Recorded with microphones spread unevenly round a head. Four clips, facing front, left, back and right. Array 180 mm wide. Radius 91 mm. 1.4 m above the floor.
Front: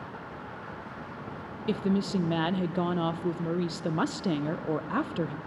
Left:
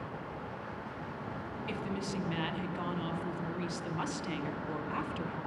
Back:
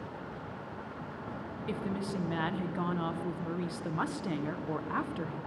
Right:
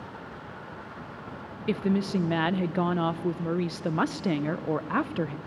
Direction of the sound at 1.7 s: 55° right.